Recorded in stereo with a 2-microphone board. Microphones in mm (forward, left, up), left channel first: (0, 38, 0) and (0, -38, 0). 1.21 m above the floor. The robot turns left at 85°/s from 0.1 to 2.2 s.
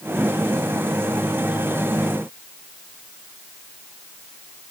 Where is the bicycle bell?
No bicycle bell in this recording.